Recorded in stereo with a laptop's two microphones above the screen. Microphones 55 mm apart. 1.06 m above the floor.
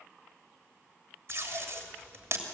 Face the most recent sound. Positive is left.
turn(degrees=-50)  # may be behind; listen again after turning